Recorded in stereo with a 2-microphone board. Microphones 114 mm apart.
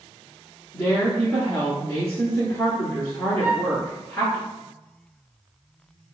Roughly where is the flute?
Right.